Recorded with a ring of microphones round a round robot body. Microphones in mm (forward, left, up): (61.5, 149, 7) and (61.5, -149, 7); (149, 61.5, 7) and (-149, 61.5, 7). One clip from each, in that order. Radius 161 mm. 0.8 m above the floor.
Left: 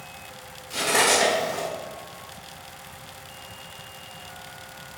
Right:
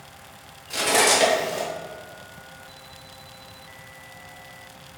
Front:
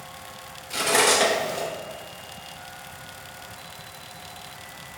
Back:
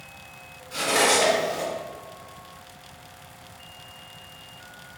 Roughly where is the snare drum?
I don't hear a snare drum.